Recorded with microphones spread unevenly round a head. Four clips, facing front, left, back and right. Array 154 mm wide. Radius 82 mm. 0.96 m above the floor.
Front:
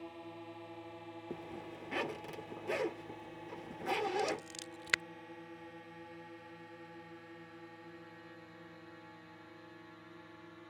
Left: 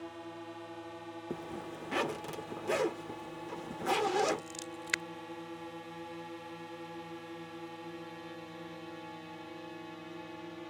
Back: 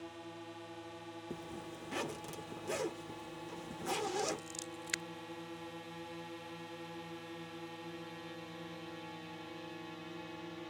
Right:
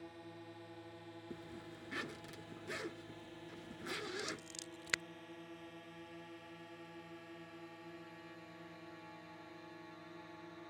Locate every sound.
0.0 s a drone: 80° left; by 10.7 s 135° left
1.3 s a zipper: 85° left
4.2 s scissors: 30° left